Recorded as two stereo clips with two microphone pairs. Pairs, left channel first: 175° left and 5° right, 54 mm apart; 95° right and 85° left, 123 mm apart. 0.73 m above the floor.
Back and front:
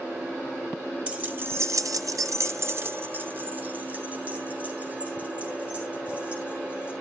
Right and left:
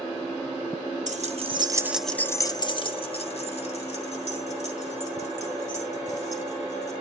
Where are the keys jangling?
65° left, 0.8 m; by 6.9 s 70° right, 4 m.